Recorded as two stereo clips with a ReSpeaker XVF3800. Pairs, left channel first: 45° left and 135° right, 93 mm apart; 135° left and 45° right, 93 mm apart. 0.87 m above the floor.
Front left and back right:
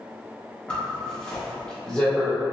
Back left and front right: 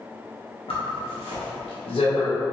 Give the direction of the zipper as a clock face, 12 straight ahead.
8 o'clock.